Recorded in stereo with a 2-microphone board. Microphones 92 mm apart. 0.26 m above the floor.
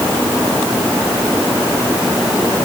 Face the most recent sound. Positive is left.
No sound to turn to.